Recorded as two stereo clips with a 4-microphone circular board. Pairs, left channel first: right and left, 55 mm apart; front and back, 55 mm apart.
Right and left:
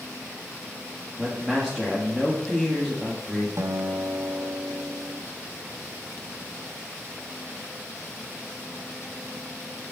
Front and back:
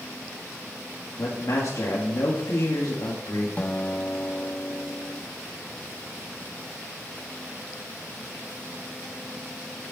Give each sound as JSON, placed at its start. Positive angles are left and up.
{"t": 1.2, "sound": "a man speaking", "azimuth_deg": 15, "distance_m": 1.8}
{"t": 3.6, "sound": "a guitar", "azimuth_deg": 65, "distance_m": 0.8}